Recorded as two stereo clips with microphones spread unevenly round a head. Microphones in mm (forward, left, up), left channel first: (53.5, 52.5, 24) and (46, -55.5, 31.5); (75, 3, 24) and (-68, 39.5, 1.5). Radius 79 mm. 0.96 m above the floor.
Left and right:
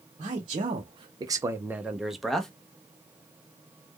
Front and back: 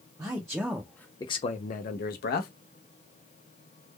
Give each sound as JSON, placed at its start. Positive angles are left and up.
{"t": 0.2, "sound": "a man speaking", "azimuth_deg": -135, "distance_m": 0.8}